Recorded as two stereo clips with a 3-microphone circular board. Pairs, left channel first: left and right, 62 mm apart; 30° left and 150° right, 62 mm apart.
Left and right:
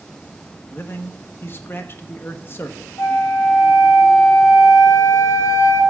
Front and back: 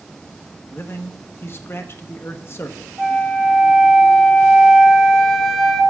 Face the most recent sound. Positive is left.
turn(degrees=115)